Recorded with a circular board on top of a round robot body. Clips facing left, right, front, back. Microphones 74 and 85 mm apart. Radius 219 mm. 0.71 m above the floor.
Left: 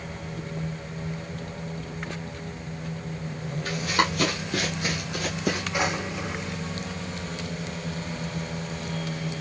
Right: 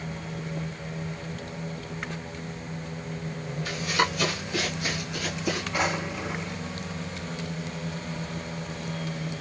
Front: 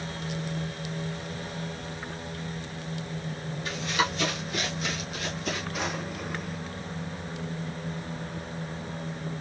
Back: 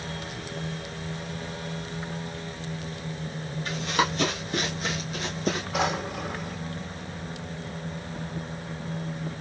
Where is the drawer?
175° left, 2 m.